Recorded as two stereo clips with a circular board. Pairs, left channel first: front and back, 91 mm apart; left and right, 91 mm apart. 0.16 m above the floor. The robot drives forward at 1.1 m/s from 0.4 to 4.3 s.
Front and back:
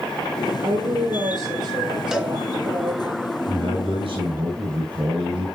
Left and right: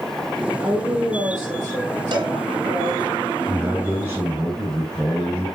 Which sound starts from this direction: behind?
A man speaking, at 3.5 s.